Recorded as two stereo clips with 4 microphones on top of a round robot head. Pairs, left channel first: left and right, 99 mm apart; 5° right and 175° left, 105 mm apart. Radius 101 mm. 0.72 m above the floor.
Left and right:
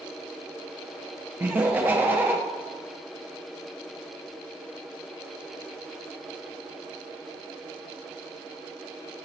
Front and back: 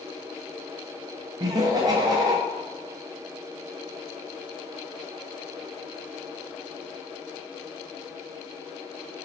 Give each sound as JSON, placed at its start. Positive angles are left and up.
{"t": 1.4, "sound": "laughter", "azimuth_deg": -155, "distance_m": 0.5}